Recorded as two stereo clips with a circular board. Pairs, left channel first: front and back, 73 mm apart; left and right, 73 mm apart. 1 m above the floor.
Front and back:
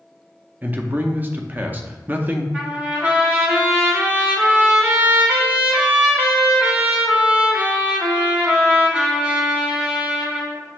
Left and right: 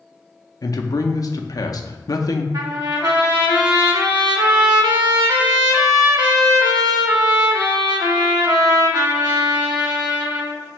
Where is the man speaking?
115° left, 0.6 m.